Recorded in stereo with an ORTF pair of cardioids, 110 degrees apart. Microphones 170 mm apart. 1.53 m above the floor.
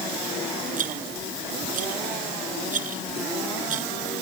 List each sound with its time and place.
0.8 s a rattle: 50° right